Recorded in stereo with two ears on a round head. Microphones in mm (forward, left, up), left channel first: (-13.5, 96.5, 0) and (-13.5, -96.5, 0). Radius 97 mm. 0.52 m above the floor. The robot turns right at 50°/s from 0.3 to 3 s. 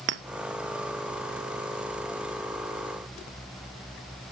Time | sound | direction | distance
0.1 | a clink | 55° right (ahead or behind) | 0.5 m